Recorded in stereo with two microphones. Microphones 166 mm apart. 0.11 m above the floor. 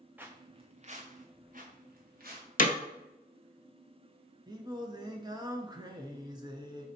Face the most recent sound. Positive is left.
turn(degrees=-25)  # may be behind; listen again after turning